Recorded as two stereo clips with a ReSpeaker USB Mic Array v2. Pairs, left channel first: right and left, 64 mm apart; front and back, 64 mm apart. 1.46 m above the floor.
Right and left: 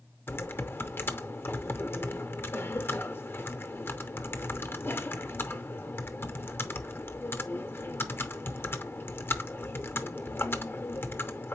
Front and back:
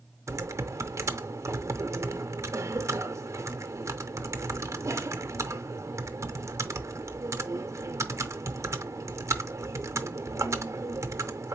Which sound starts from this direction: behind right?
Typing on a keyboard, at 0.3 s.